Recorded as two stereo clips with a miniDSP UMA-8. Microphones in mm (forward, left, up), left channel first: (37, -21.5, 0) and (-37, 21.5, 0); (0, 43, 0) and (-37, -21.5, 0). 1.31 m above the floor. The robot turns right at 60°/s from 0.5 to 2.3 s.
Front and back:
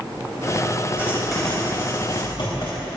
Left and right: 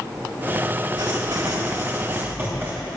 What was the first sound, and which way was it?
Writing, 140° right.